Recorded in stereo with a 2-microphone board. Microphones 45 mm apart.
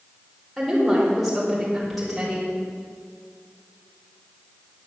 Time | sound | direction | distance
0.6 | a woman speaking | centre (ahead or behind) | 4.5 m